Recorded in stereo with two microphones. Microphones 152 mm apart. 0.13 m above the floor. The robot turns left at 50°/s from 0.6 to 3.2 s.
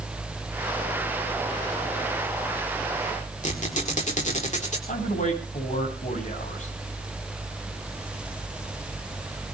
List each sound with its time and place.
3.4 s a squeak: 45° left (ahead or behind), 4.5 m
4.9 s a man speaking: 50° left (ahead or behind), 8 m